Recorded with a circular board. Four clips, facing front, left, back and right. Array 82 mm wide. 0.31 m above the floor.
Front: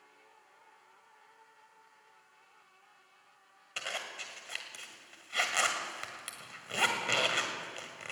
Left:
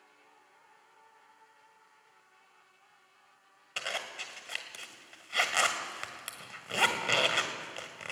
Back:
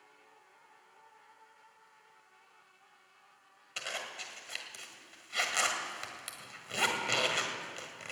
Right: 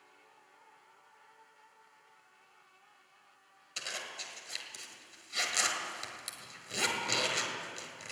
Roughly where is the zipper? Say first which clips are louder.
Left 5 dB, front 1 dB; left.